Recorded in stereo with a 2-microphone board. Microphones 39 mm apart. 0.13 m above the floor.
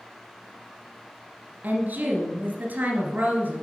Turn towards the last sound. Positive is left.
turn(degrees=-50)  # may be behind; listen again after turning